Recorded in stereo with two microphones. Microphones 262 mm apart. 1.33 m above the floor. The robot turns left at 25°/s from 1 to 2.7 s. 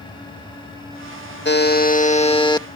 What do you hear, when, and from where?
1.4 s a buzzer: 45° left; by 2.7 s 15° left